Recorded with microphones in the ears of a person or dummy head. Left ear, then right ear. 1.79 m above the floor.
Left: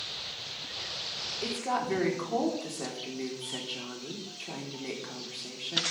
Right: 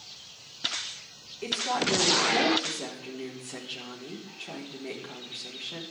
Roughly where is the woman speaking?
Centre.